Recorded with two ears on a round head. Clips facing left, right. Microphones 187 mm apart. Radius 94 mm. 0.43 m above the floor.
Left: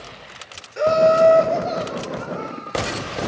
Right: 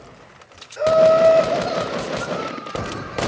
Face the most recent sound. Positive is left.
turn(degrees=-35)  # may be behind; listen again after turning